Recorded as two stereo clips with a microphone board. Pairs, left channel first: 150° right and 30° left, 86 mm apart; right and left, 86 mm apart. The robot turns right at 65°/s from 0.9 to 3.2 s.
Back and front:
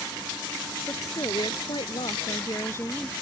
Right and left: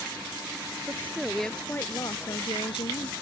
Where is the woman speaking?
150° left; by 3.1 s 65° right.